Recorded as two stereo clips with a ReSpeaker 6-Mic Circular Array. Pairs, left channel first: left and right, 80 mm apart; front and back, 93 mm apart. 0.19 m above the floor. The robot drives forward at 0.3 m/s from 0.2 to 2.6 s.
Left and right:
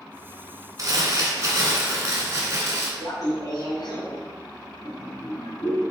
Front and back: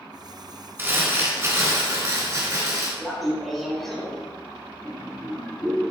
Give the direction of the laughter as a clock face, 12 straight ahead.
9 o'clock.